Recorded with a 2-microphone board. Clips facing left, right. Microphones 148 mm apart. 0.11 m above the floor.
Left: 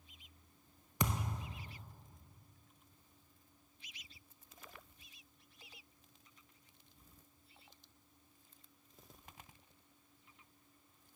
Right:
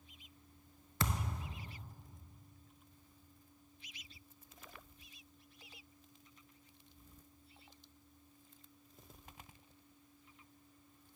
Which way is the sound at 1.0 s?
20° left (ahead or behind).